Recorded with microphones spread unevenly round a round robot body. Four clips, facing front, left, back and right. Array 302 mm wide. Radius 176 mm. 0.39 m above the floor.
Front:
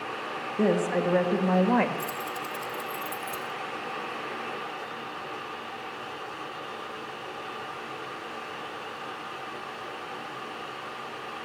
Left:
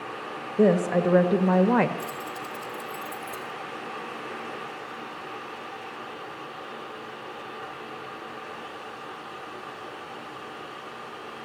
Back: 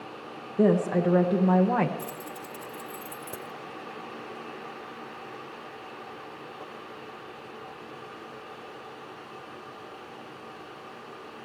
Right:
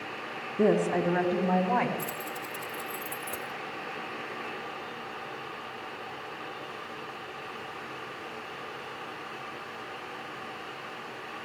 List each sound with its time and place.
0.6 s a woman speaking: 120° left, 1.8 m; by 1.9 s 100° left, 1.4 m
2.0 s keys jangling: 175° right, 1.2 m